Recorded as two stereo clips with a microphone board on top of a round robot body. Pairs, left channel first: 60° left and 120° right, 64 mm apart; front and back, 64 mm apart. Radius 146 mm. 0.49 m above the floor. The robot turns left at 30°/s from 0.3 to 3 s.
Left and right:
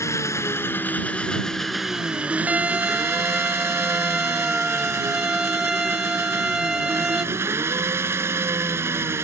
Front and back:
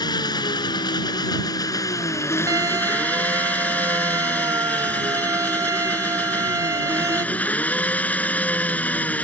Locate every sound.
0.0 s an engine running: 15° left; by 9.2 s 70° right
2.5 s a violin: 175° left; by 7.2 s 160° left